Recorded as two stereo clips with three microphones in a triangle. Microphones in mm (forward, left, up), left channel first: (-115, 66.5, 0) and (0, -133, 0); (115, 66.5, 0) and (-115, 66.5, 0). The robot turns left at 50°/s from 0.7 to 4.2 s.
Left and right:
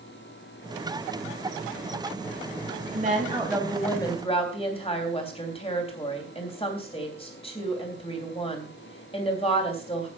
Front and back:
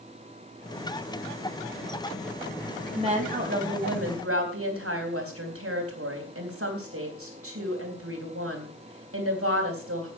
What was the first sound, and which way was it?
A woman speaking, 110° right.